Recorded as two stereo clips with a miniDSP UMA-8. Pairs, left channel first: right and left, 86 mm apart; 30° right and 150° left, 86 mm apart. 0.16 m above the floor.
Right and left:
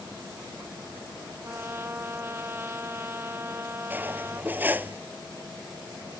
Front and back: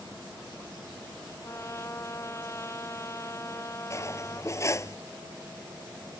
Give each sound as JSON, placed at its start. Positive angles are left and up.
{"t": 1.4, "sound": "a trumpet", "azimuth_deg": 25}
{"t": 3.9, "sound": "cutlery clinking", "azimuth_deg": 25}